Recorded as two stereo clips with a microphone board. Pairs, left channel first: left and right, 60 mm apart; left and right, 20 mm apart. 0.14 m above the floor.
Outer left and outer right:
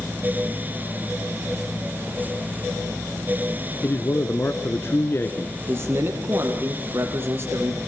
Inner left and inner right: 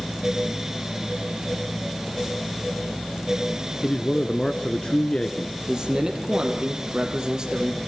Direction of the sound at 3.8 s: 40° left (ahead or behind).